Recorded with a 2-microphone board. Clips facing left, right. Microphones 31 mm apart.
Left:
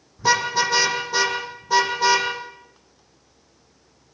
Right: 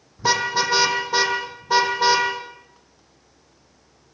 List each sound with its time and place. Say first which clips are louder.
0.2 s a car horn: left 1 dB; 10° right (ahead or behind), 6 m; by 2.3 s 20° right (ahead or behind), 6 m